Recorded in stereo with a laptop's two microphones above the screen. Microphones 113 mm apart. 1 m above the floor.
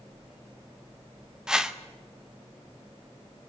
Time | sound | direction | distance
1.5 | a whoosh | 5° right (ahead or behind) | 0.8 m